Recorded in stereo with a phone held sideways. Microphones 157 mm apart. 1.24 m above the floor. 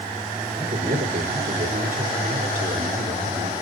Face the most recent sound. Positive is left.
turn(degrees=-65)  # may be behind; listen again after turning